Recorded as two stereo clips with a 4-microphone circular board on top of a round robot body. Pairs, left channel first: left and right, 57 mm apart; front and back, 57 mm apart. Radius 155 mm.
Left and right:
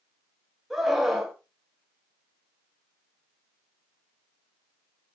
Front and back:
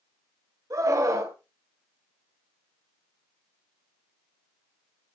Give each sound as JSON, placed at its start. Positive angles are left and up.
{"t": 0.7, "sound": "a scream", "azimuth_deg": -175, "distance_m": 3.0}